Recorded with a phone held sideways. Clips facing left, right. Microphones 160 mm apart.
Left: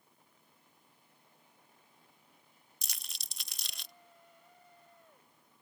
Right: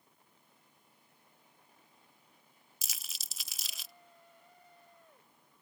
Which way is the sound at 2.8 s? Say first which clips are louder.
Even; centre (ahead or behind).